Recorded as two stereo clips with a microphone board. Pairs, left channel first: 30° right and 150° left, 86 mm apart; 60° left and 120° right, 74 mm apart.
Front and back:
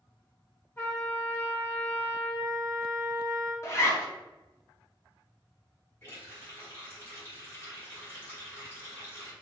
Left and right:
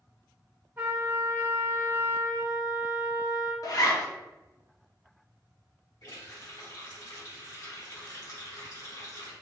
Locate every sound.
0.8 s a trumpet: 80° right, 1.3 m
3.6 s a zipper: 25° left, 0.7 m
6.0 s a running tap: 30° left, 1.7 m